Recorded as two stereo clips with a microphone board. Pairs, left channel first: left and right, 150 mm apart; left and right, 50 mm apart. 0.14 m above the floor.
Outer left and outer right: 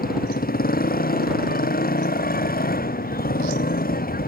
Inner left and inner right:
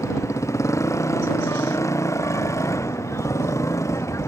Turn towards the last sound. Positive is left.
turn(degrees=75)  # may be behind; listen again after turning